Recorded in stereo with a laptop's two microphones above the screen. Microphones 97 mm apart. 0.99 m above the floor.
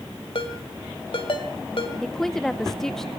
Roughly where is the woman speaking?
Centre.